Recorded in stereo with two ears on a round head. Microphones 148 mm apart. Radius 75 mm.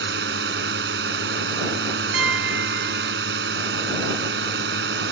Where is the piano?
70° right (ahead or behind).